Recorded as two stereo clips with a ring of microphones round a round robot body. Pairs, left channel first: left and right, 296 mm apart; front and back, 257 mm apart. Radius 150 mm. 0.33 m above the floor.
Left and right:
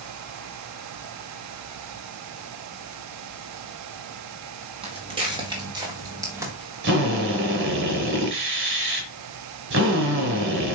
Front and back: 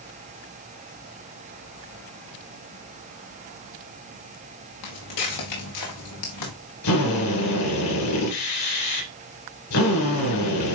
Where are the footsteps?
15° right, 3.5 m; by 6.5 s 10° right, 2.5 m.